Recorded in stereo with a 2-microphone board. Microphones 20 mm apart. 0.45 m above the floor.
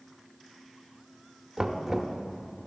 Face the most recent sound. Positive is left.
turn(degrees=-20)  # may be behind; listen again after turning